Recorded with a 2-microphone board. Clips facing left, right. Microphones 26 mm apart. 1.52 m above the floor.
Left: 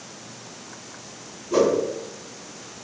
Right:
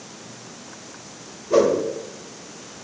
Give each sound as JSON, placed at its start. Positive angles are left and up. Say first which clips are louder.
{"t": 1.5, "sound": "a whoosh", "louder": "right 2 dB", "side_deg": -75, "distance_m": 1.1}